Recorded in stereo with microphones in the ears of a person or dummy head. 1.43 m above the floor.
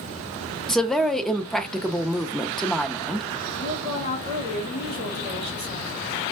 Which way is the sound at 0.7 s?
Centre (ahead or behind).